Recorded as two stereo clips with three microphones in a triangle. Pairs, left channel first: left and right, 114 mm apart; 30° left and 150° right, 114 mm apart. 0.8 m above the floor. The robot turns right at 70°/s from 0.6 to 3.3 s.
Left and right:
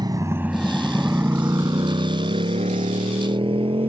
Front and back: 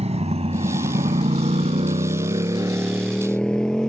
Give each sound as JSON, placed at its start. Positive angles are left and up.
{"t": 0.0, "sound": "a motorcycle", "azimuth_deg": -140}